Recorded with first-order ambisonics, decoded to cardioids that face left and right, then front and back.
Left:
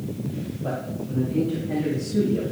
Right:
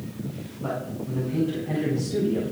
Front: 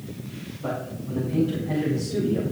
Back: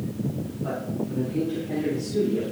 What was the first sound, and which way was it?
A man speaking, 50° right.